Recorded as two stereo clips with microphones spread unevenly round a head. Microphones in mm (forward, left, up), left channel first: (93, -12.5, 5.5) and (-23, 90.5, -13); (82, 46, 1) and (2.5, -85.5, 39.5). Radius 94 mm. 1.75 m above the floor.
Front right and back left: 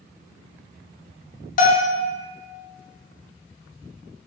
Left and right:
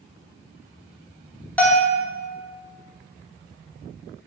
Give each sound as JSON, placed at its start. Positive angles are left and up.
{"t": 1.6, "sound": "a bell", "azimuth_deg": -30, "distance_m": 0.6}